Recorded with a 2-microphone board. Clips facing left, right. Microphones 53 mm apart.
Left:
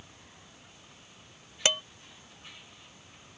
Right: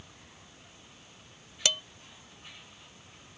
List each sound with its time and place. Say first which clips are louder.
1.6 s dishes clattering: left 3 dB; 30° left (ahead or behind)